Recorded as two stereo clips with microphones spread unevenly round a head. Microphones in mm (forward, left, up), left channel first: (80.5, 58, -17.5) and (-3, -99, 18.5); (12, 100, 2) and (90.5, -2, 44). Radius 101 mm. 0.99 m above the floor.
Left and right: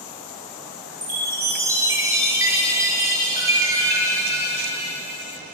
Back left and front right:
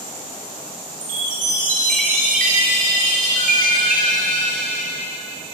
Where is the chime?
45° right, 4.5 m.